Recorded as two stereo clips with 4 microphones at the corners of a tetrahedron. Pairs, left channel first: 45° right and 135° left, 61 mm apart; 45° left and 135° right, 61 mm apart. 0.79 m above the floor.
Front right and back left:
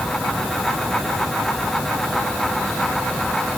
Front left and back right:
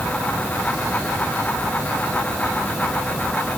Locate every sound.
Only background noise.